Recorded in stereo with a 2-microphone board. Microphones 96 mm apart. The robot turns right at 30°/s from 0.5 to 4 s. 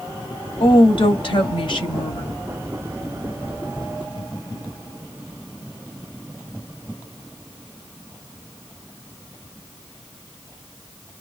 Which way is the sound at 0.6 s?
80° left.